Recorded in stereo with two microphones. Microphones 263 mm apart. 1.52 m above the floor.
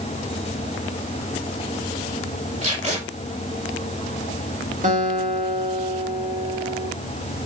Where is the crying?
I don't hear crying.